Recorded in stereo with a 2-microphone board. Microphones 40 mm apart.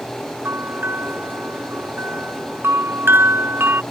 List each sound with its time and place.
0.5 s a bell: 80° right